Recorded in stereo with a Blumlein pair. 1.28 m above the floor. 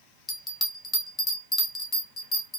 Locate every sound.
0.3 s a bell: 15° left, 1.2 m